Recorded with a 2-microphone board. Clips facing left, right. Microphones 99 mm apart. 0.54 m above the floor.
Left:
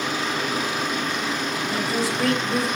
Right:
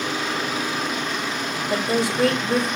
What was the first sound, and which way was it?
A woman speaking, 60° right (ahead or behind).